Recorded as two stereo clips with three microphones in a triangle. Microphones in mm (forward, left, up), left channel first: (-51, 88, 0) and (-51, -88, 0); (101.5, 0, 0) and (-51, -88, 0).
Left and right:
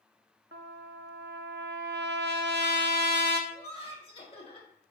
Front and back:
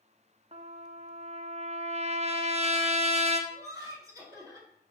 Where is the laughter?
145° left, 2 m.